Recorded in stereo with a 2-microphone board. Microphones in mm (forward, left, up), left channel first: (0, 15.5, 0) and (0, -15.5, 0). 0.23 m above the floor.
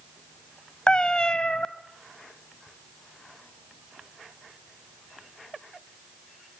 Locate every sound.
0.9 s a cat meowing: 30° left (ahead or behind), 0.8 m